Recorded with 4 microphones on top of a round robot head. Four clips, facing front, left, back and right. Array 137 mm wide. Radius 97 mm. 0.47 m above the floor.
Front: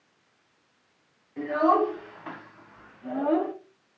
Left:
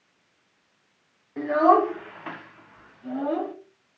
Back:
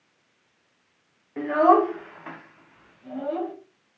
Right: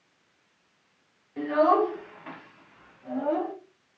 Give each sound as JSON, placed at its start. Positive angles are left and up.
{"t": 1.4, "sound": "a child speaking", "azimuth_deg": 150, "distance_m": 1.2}